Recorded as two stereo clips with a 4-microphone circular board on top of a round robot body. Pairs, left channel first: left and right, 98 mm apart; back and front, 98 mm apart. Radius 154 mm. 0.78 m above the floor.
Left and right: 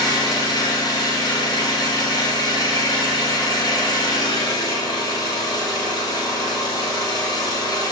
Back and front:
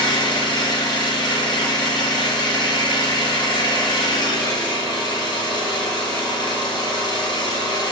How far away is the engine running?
About 1.8 m.